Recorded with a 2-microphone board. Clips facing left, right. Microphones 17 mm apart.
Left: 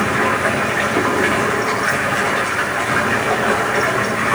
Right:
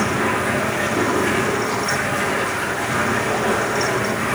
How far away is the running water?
About 6 m.